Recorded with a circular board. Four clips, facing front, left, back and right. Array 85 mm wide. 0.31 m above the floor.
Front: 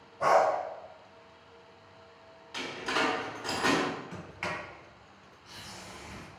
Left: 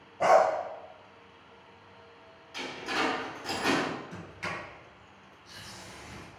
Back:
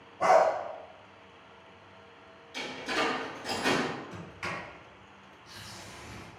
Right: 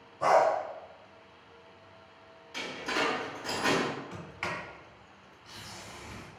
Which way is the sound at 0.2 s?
105° left.